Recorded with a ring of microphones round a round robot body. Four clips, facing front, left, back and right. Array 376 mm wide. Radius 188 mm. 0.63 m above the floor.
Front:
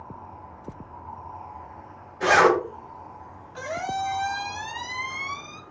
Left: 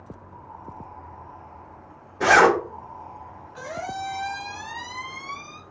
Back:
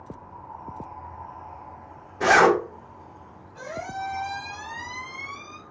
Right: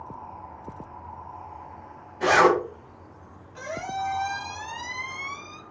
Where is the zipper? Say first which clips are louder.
Left 2 dB, back 1 dB; 110° left, 2 m.